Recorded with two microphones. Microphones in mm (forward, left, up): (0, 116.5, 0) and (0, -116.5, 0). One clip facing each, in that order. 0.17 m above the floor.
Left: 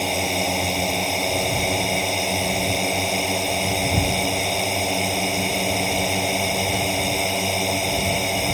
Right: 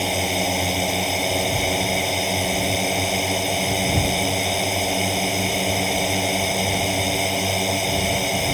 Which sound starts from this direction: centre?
A drone, at 0.0 s.